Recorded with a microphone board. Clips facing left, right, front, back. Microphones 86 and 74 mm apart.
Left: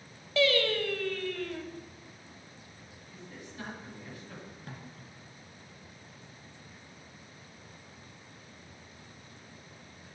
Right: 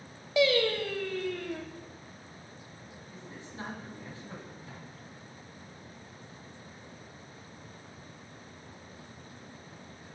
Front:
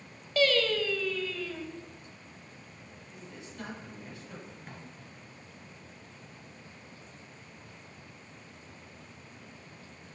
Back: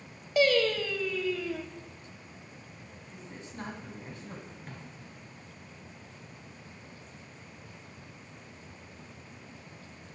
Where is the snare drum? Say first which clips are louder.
Even, back 1 dB; 85° left, 1.5 m.